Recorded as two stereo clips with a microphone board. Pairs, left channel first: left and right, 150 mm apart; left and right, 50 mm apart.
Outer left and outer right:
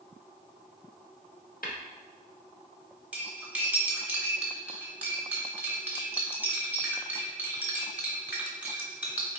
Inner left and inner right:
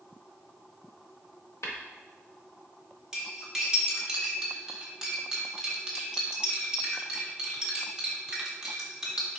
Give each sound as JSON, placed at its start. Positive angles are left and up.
{"t": 1.6, "sound": "tapping", "side_deg": 75, "distance_m": 0.9}
{"t": 3.1, "sound": "cutlery clinking", "side_deg": -10, "distance_m": 0.9}